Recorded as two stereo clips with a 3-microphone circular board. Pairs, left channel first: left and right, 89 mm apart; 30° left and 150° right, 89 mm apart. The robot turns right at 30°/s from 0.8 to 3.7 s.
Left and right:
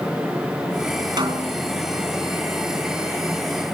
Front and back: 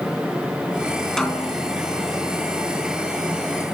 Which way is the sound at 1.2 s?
55° right.